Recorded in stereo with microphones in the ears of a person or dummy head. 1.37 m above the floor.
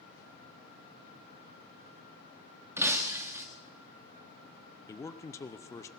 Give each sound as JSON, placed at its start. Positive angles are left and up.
{"t": 2.8, "sound": "breaking glass", "side_deg": -15, "distance_m": 1.2}
{"t": 4.9, "sound": "a man speaking", "side_deg": 15, "distance_m": 0.6}